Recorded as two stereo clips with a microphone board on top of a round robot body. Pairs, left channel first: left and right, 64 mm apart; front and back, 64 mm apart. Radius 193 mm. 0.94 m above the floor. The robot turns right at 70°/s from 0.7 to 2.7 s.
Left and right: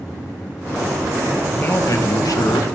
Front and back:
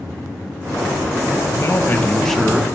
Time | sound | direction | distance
1.5 | a man speaking | 25° left | 1.2 m